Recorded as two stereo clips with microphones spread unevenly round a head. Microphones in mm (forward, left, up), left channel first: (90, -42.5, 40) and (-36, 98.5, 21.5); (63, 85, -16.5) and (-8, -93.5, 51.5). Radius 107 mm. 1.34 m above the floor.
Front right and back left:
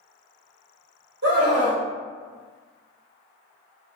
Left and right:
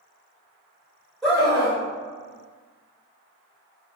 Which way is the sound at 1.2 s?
150° left.